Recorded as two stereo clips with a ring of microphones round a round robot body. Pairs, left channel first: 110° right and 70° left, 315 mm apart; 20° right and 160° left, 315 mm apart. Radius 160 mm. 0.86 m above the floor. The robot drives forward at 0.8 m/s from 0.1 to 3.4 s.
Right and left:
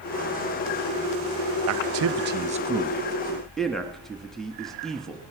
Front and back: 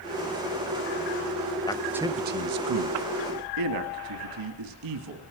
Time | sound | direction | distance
1.7 | a man speaking | 50° left | 0.7 m